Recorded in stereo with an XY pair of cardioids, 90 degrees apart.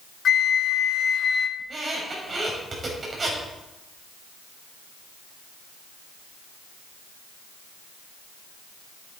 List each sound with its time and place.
0.2 s a flute: 65° left, 0.8 m
1.6 s a squeak: 40° right, 4.5 m